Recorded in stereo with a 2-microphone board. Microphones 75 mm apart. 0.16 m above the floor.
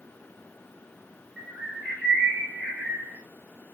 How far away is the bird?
About 1.4 m.